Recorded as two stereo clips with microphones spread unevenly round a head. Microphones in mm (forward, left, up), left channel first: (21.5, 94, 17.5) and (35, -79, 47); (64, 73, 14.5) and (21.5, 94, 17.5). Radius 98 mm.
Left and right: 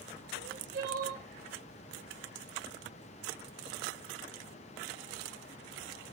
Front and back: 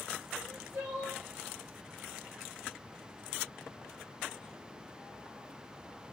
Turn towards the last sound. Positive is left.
turn(degrees=-135)